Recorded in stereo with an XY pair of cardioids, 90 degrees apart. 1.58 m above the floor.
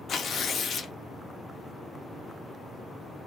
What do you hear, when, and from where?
0.1 s tearing paper: 65° left, 0.6 m